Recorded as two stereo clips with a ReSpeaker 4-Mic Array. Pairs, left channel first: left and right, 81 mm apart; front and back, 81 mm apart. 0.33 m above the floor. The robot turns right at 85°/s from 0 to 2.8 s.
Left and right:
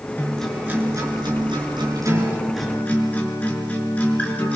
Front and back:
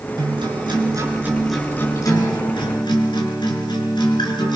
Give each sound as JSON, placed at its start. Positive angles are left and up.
{"t": 0.2, "sound": "a guitar", "azimuth_deg": 155, "distance_m": 5.0}